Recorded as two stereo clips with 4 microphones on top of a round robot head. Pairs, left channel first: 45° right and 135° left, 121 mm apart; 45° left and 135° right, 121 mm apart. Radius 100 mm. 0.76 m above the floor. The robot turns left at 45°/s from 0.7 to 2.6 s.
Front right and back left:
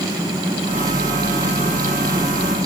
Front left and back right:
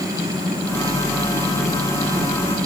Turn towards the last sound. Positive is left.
No sound to turn to.